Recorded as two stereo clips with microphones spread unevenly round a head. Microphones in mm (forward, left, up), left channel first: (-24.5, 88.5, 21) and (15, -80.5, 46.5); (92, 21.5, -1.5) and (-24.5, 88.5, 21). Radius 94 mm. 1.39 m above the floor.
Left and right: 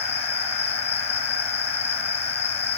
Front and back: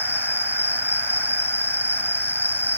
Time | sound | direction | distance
0.0 | an insect | 45° left | ?